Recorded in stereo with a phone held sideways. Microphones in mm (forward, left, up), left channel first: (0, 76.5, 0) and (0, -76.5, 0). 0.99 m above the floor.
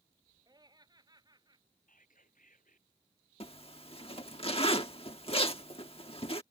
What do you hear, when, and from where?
0.5 s laughter: 25° right (ahead or behind)
1.9 s whispering: 60° left (ahead or behind)
3.4 s a zipper: 40° left (ahead or behind)